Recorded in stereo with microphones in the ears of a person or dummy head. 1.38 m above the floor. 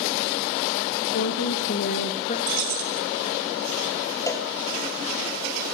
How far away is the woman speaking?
About 2 m.